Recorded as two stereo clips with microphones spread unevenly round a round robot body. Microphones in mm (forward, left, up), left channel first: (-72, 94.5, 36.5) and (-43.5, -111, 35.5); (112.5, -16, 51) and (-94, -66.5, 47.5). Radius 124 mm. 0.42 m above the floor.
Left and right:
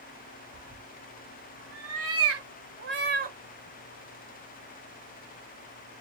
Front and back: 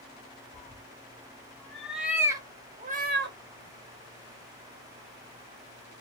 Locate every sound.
0.5 s a cat meowing: 55° right, 2 m; by 3.4 s 130° right, 1.0 m